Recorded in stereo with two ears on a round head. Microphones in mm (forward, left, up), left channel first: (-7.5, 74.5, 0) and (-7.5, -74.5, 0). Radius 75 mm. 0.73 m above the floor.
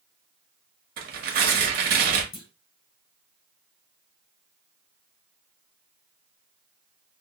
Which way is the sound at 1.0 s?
60° right (ahead or behind).